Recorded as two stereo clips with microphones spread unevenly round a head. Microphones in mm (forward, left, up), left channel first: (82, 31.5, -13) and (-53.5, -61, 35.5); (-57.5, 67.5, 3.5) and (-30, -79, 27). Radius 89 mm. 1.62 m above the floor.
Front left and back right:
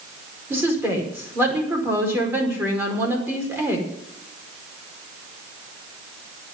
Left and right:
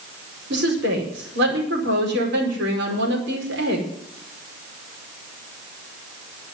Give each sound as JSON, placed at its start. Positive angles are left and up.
{"t": 0.5, "sound": "a woman speaking", "azimuth_deg": -70, "distance_m": 5.0}